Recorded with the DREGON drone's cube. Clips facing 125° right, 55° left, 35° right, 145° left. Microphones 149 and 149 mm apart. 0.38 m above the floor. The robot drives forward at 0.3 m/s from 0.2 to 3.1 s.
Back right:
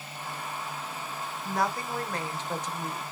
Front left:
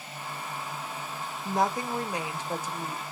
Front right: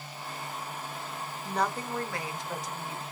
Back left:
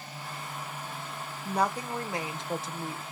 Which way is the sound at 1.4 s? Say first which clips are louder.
Front left 3 dB, back left 2 dB; 75° left.